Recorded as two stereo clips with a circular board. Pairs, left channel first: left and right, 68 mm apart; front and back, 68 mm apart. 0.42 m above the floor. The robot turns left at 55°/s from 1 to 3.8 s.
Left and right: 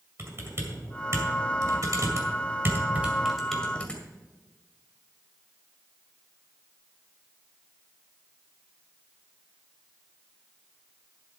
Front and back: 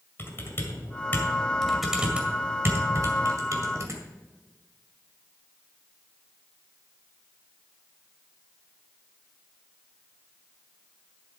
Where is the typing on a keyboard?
50° right, 2 m; by 4.0 s 160° left, 2 m.